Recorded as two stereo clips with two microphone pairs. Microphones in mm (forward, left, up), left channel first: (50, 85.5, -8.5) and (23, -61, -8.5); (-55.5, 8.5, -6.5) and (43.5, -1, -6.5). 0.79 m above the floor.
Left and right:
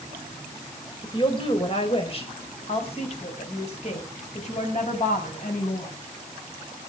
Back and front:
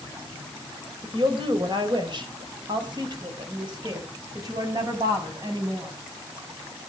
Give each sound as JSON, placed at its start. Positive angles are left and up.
{"t": 1.0, "sound": "a woman speaking", "azimuth_deg": 25, "distance_m": 3.0}